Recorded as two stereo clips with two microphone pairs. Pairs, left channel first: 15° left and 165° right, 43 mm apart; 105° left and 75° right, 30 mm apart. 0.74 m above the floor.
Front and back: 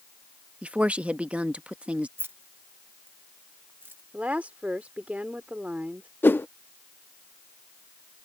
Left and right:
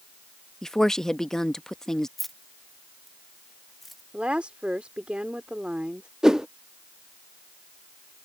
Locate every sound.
0.6 s a woman speaking: 170° left
2.2 s keys jangling: 165° right
4.1 s a woman speaking: 115° right
6.2 s a whoosh: 10° right